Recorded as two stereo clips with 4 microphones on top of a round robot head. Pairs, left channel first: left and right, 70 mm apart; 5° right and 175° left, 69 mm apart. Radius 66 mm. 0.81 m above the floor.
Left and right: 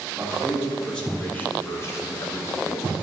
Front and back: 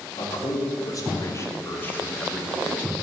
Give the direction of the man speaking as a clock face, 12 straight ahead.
12 o'clock.